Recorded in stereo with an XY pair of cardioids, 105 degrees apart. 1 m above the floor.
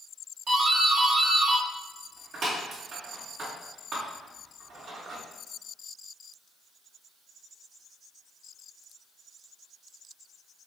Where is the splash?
I don't hear a splash.